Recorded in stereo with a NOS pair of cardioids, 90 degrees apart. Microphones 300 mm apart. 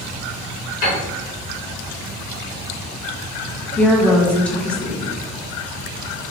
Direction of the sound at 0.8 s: 55° left.